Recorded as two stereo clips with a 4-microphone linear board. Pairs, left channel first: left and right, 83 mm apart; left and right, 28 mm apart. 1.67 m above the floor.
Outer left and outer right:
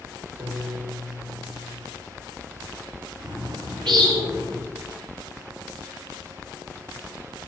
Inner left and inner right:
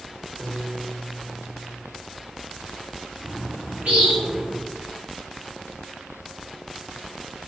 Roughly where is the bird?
Right.